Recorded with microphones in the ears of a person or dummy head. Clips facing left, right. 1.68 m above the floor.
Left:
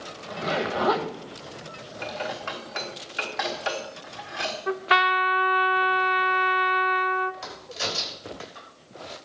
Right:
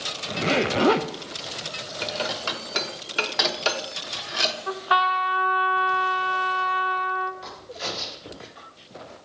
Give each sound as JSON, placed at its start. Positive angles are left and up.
{"t": 0.3, "sound": "a zipper", "side_deg": -35, "distance_m": 0.7}
{"t": 2.0, "sound": "dishes clattering", "side_deg": -55, "distance_m": 1.3}
{"t": 4.7, "sound": "a trumpet", "side_deg": 30, "distance_m": 0.6}
{"t": 7.4, "sound": "a crack", "side_deg": 65, "distance_m": 5.0}